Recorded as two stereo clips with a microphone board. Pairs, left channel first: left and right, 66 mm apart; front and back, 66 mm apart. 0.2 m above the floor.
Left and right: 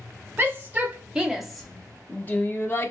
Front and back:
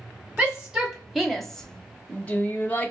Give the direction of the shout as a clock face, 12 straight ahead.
4 o'clock.